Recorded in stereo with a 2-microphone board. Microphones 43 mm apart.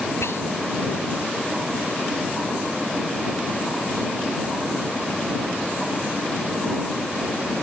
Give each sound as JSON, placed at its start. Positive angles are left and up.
{"t": 0.2, "sound": "whispering", "side_deg": 75}